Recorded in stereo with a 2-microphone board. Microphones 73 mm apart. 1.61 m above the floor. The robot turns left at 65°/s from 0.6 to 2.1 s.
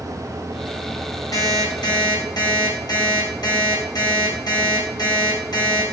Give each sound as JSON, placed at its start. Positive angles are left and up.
{"t": 1.3, "sound": "an alarm clock", "azimuth_deg": 120, "distance_m": 5.5}